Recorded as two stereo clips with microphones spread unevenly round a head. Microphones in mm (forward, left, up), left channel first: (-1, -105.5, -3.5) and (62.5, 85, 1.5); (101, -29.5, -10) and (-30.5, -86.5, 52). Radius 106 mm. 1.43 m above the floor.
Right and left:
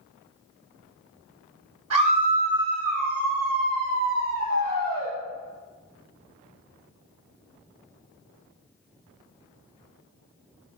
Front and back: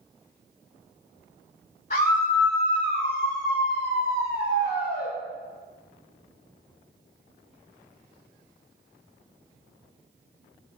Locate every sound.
1.9 s a scream: 80° left, 8 m; by 5.1 s 75° left, 3.5 m